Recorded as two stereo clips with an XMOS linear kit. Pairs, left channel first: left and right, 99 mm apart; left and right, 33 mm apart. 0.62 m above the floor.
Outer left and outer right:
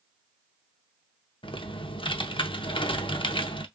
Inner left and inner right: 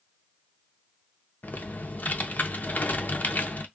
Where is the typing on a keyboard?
70° left (ahead or behind), 0.6 m.